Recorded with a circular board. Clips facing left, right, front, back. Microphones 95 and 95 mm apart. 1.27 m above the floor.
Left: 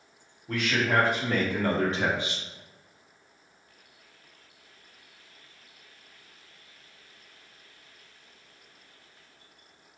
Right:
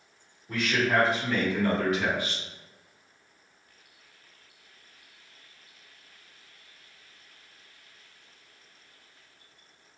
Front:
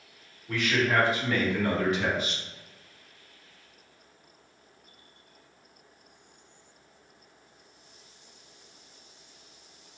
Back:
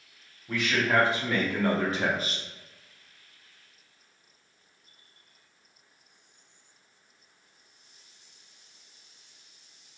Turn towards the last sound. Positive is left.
turn(degrees=160)